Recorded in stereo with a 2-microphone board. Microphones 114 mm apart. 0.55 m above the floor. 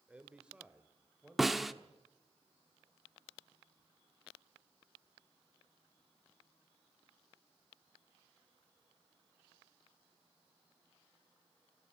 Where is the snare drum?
Centre (ahead or behind), 0.9 m.